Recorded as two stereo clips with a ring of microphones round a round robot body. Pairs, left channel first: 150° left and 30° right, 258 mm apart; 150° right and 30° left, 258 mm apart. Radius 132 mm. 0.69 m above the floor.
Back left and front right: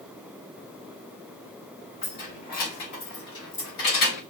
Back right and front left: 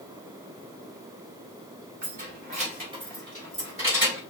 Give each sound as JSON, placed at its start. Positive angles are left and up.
{"t": 2.0, "sound": "keys jangling", "azimuth_deg": 85, "distance_m": 2.5}